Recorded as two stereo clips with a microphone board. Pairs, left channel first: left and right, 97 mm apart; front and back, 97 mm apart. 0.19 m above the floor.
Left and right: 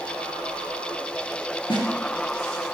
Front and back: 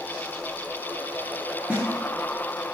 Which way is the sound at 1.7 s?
105° left.